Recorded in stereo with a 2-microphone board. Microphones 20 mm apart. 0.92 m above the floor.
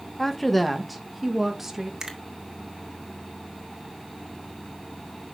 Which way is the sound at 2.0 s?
30° right (ahead or behind).